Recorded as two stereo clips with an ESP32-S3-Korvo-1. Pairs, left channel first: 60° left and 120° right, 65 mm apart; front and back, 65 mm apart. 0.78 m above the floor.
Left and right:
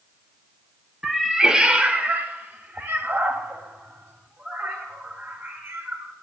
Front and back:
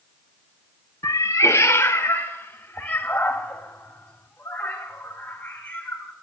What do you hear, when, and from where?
1.0 s a cat meowing: 35° right, 0.8 m; by 6.1 s 70° right, 3.5 m